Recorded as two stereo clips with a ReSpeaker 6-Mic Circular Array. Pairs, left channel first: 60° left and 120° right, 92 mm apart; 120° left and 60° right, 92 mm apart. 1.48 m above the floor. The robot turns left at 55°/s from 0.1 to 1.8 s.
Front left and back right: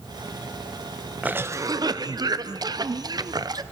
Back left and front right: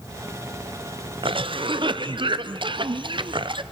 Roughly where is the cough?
Ahead right.